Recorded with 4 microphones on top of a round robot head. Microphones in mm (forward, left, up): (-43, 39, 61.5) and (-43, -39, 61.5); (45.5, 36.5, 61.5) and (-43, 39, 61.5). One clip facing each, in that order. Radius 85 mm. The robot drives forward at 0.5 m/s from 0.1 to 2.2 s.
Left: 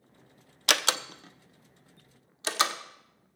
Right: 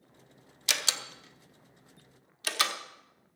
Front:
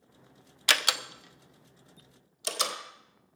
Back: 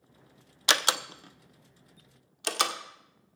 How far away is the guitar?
No guitar in this recording.